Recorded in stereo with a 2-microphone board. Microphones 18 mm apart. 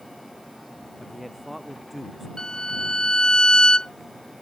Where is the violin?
55° left (ahead or behind).